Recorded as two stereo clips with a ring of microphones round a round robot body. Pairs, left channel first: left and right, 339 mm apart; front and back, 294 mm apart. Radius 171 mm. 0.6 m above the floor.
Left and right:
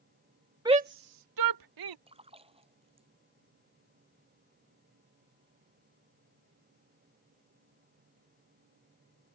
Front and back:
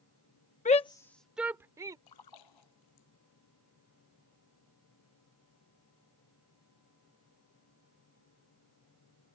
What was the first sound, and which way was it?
A shout, 25° right.